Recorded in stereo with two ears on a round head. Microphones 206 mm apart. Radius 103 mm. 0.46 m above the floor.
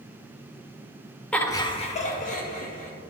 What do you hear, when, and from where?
1.3 s laughter: 5° left (ahead or behind), 0.8 m; by 2.9 s 40° left (ahead or behind), 1.6 m